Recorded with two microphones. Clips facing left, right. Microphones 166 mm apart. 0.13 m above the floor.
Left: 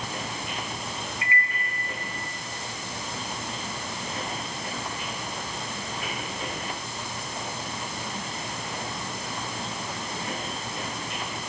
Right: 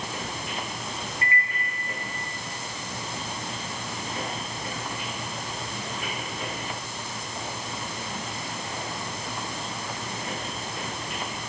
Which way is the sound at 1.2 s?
45° right (ahead or behind).